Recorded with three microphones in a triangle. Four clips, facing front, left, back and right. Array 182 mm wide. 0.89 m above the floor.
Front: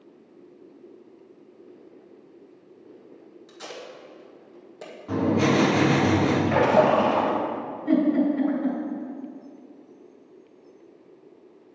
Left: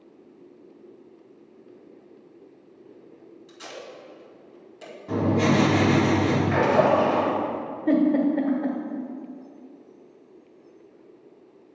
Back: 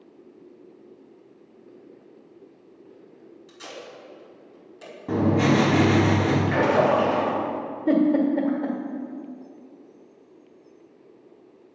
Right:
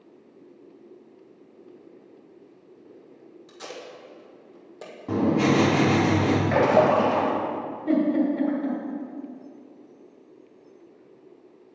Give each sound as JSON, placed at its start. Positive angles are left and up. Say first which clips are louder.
{"t": 3.5, "sound": "tape being pulled", "louder": "right 1 dB, front 1 dB", "azimuth_deg": -60, "distance_m": 1.6}
{"t": 5.1, "sound": "writing", "louder": "right 1 dB, back 1 dB", "azimuth_deg": -140, "distance_m": 2.5}
{"t": 6.5, "sound": "a splash", "louder": "right 1 dB, front 2 dB", "azimuth_deg": -65, "distance_m": 2.0}
{"t": 7.9, "sound": "a giggle", "louder": "left 2 dB, back 1 dB", "azimuth_deg": 165, "distance_m": 1.6}